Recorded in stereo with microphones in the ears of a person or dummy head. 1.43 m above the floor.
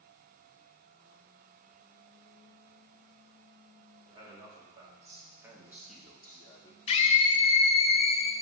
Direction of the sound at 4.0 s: 25° right (ahead or behind).